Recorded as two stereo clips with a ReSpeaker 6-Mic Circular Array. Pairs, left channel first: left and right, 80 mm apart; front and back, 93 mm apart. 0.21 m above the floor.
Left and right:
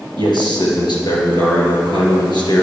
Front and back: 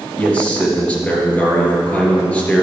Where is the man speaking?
75° left, 3 m.